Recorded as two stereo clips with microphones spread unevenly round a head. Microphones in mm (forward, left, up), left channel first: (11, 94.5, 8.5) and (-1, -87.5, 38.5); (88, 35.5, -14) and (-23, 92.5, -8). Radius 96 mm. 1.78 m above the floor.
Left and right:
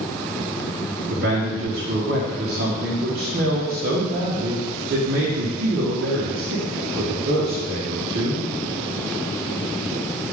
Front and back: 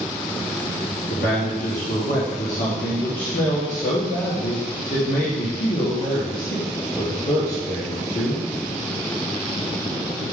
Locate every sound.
1.1 s a man speaking: 60° right, 1.2 m